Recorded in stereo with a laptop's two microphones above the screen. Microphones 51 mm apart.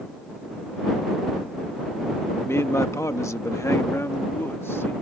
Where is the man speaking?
55° left (ahead or behind); by 4.9 s 50° left (ahead or behind).